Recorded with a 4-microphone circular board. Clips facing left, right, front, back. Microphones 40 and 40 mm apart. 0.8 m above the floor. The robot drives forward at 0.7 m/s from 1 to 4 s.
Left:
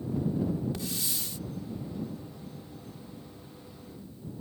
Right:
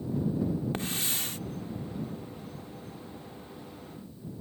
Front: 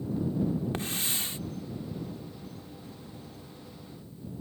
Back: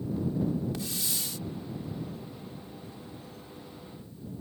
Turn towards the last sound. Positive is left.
turn(degrees=-140)